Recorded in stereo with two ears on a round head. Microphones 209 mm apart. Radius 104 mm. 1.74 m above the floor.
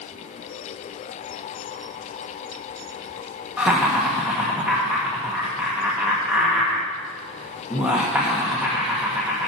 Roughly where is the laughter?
Centre.